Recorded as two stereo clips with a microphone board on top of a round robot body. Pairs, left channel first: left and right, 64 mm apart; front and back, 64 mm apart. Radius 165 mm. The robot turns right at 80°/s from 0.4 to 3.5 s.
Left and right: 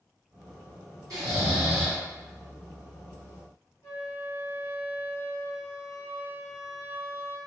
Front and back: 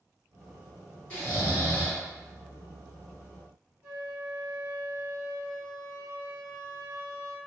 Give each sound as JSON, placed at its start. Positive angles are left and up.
{"t": 1.1, "sound": "snoring", "azimuth_deg": -65, "distance_m": 1.7}
{"t": 3.8, "sound": "a flute", "azimuth_deg": 125, "distance_m": 1.8}